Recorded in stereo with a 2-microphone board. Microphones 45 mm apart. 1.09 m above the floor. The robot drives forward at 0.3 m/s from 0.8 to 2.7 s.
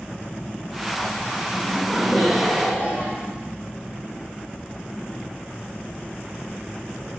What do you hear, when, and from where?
1.5 s laughter: 5° left (ahead or behind), 2 m